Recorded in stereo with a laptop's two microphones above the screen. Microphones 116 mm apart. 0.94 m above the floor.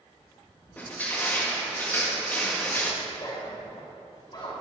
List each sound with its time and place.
0.8 s crushing: 15° left (ahead or behind), 1.7 m
3.0 s a zipper: 45° left (ahead or behind), 4 m